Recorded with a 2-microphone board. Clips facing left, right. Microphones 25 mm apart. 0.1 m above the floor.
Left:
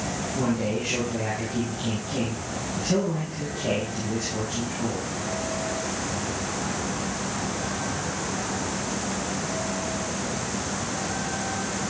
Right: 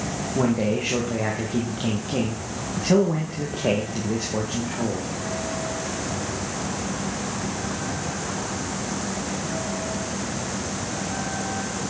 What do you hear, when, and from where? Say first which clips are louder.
0.3 s a man speaking: right 4 dB; 45° right (ahead or behind), 6.5 m